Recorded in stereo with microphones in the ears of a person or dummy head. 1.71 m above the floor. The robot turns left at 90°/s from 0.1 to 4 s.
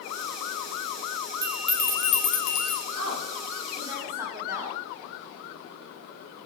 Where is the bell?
150° right, 1.9 m; by 2.8 s 85° left, 1.9 m.